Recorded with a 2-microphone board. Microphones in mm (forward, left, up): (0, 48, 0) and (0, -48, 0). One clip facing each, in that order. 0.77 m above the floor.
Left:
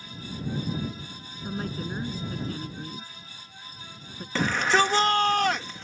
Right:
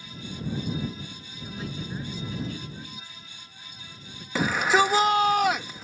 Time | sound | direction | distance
1.4 | a woman speaking | 45° left (ahead or behind) | ?
4.3 | a shout | 10° right (ahead or behind) | ?